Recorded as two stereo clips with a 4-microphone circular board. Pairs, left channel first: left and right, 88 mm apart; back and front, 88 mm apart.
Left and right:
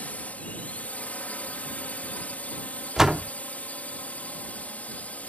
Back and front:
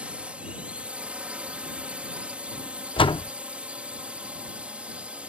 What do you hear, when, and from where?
0.0 s a drone: 50° left
3.0 s a door slam: 175° right